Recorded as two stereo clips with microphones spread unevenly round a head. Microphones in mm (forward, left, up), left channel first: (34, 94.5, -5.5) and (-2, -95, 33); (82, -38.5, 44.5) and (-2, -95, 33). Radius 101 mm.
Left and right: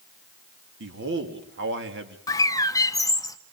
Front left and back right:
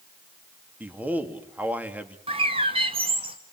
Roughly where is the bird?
Behind left.